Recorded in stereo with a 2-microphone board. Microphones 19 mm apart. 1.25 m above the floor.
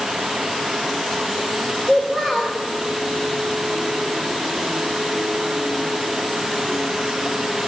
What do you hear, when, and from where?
1.9 s a child speaking: 20° right (ahead or behind), 3.5 m